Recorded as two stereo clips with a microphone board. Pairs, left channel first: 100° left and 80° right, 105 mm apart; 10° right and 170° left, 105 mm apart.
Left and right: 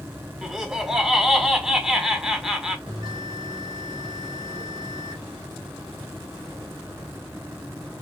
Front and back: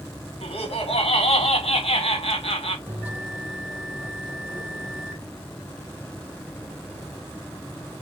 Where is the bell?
115° right, 2 m.